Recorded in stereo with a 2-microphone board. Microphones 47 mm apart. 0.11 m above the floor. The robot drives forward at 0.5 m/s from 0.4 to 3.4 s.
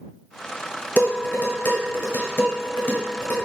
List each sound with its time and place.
1.0 s dishes clattering: 35° left (ahead or behind), 1.3 m; by 3.4 s 40° left (ahead or behind), 1.2 m